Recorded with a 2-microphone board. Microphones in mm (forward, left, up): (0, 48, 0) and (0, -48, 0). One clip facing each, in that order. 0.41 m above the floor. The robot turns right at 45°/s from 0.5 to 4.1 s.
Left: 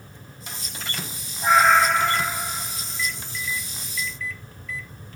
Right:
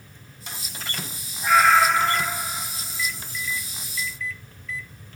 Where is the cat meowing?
145° left, 1.1 m; by 2.4 s 170° right, 1.1 m.